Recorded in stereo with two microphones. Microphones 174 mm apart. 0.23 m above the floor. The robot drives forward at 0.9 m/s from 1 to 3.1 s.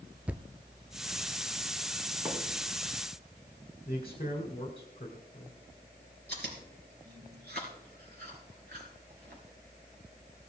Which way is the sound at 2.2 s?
15° right (ahead or behind).